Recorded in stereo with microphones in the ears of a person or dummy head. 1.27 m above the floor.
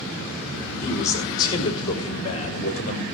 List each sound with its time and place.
0.8 s a man speaking: 20° left (ahead or behind), 5 m; by 3.0 s 35° left (ahead or behind), 5.5 m